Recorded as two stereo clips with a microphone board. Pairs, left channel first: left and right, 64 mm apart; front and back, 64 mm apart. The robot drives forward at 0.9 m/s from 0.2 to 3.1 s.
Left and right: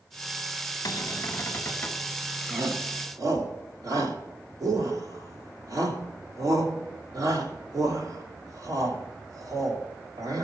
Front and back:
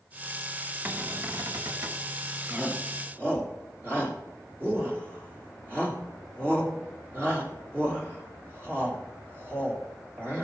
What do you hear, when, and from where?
0.8 s a cupboard door: 115° left, 0.9 m; by 2.1 s 150° left, 1.7 m
2.5 s a shout: 110° right, 2.5 m; by 10.4 s 120° right, 3 m